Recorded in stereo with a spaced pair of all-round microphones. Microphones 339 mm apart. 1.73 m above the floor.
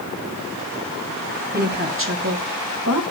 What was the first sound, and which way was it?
A woman speaking, 25° right (ahead or behind).